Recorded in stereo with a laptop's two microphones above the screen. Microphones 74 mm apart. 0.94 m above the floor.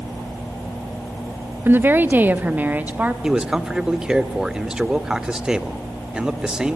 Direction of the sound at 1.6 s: 30° right (ahead or behind).